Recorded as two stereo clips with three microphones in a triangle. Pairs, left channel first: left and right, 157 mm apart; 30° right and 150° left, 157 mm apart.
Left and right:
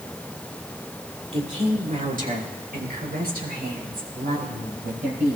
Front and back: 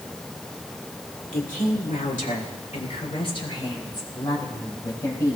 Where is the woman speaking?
45° right, 3 m; by 5.4 s 100° right, 6 m.